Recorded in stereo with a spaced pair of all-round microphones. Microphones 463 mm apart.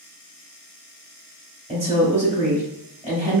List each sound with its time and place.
1.7 s a woman speaking: 15° right (ahead or behind), 1.7 m